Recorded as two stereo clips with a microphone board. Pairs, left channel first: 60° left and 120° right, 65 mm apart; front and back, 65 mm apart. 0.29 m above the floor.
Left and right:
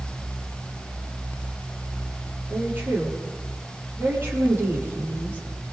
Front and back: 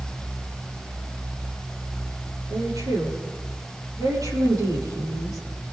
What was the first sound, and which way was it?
A woman speaking, 175° right.